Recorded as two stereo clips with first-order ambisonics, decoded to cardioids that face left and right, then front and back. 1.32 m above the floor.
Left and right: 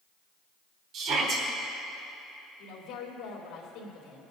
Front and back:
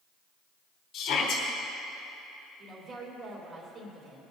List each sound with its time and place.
0.9 s a shout: 45° right, 3 m
2.6 s a woman speaking: 130° left, 3.5 m